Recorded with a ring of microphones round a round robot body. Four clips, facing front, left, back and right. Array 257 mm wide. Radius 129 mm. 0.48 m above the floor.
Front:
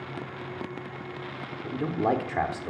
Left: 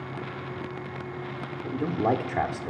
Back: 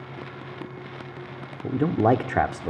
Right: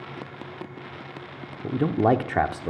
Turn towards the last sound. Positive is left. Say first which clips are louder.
# right 5 dB, back 6 dB
turn(degrees=-145)